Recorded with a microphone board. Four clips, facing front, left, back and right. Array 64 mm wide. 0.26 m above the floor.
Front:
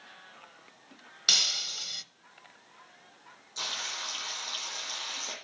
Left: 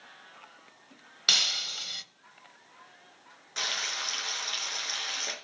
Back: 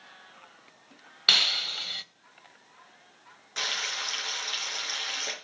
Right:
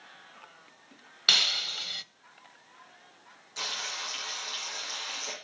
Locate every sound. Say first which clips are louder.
1.3 s breaking glass: right 2 dB, back 6 dB; 160° right, 0.7 m
3.6 s frying: left 3 dB, back 5 dB; 145° left, 5 m